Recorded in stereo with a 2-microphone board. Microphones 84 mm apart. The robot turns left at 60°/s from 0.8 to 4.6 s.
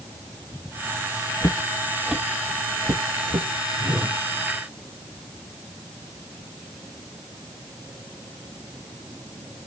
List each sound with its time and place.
1.4 s footsteps: 50° left (ahead or behind), 0.7 m; by 3.5 s 75° right (ahead or behind), 1.8 m
3.8 s a whoosh: 20° right (ahead or behind), 5 m; by 4.2 s centre (ahead or behind), 5 m